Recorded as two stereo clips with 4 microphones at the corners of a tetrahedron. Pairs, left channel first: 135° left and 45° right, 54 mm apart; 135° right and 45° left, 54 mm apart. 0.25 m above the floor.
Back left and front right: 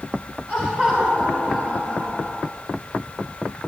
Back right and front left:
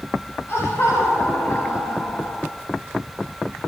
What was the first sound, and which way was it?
Laughter, 110° right.